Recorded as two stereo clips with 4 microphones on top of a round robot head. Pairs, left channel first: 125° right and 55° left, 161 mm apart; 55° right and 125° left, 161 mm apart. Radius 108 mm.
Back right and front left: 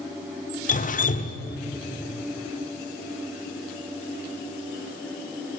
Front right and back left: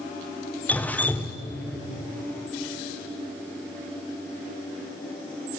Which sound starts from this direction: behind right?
Dripping, at 0.7 s.